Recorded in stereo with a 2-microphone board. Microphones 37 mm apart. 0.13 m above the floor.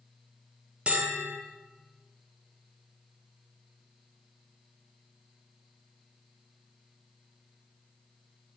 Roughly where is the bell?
Right.